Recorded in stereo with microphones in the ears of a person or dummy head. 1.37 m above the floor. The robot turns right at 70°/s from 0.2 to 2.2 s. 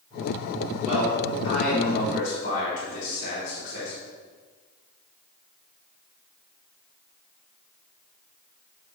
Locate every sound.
0.8 s a man speaking: 50° right, 3 m; by 3.9 s 45° left, 3 m